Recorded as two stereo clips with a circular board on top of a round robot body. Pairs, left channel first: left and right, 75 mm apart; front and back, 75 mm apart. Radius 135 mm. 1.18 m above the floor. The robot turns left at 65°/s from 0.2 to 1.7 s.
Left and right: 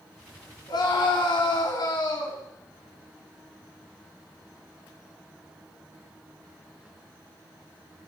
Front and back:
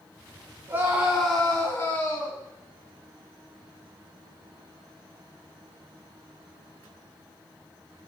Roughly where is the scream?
Behind left.